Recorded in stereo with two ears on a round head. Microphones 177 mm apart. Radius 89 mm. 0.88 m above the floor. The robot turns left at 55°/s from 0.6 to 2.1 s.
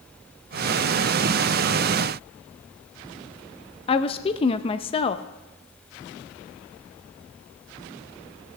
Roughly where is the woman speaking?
Left.